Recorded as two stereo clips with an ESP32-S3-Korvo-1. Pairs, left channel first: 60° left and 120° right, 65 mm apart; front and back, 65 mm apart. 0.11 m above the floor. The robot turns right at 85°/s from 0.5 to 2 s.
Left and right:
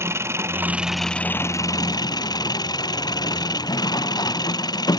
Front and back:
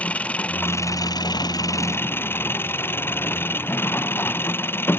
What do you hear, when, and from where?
0.0 s an engine running: 70° right; by 5.0 s 55° left